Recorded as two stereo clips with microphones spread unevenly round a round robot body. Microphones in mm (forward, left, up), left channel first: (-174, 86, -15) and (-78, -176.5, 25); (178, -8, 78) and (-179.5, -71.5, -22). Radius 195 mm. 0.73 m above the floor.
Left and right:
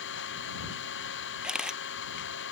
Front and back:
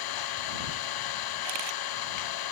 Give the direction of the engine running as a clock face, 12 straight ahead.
10 o'clock.